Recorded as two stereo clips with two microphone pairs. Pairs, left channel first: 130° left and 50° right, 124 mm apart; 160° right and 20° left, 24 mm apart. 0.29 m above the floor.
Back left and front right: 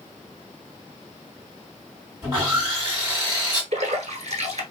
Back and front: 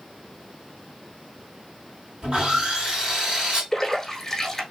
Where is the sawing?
5° right, 2 m.